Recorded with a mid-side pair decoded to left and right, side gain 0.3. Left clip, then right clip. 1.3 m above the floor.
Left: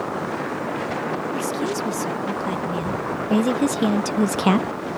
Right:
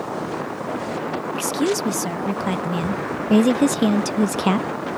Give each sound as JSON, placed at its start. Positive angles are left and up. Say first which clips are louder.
{"t": 1.3, "sound": "a woman speaking", "louder": "right 2 dB", "azimuth_deg": -70}